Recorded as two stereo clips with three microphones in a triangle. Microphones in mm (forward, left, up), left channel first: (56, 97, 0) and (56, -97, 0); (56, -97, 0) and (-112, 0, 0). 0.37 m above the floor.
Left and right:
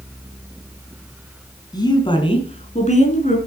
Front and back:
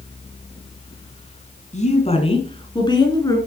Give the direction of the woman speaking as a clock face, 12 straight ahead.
11 o'clock.